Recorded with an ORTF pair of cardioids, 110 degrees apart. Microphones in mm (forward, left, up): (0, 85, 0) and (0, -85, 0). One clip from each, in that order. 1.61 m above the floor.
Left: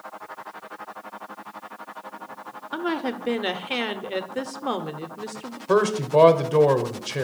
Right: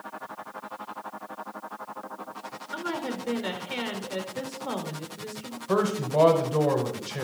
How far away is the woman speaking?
About 0.7 m.